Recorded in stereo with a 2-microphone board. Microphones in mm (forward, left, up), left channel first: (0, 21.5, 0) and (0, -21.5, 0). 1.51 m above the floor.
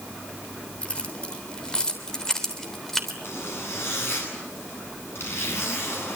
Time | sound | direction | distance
0.8 | keys jangling | 25° left (ahead or behind) | 3.5 m
3.2 | a zipper | 65° left (ahead or behind) | 10 m